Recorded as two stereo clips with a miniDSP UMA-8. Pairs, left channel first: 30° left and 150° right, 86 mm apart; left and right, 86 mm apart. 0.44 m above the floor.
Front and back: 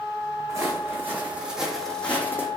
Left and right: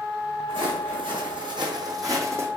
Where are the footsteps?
95° right, 1.7 m; by 2.5 s 30° right, 1.2 m.